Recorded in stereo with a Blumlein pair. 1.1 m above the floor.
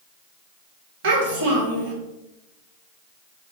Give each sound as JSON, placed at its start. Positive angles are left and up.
{"t": 1.0, "sound": "a child speaking", "azimuth_deg": -50, "distance_m": 1.4}